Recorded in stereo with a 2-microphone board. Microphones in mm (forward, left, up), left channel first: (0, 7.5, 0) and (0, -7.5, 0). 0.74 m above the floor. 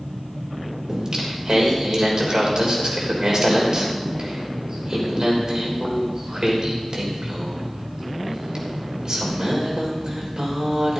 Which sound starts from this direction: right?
Singing, at 0.9 s.